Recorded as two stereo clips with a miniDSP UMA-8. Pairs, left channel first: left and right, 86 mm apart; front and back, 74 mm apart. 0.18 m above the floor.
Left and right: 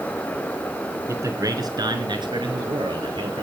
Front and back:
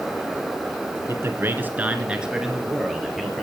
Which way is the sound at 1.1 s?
140° right.